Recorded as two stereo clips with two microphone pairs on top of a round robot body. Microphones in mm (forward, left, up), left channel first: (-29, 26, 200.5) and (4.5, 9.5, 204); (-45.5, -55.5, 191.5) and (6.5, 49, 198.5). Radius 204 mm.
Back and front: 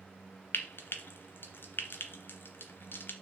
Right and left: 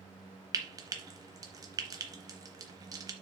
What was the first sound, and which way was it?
Frying, 125° left.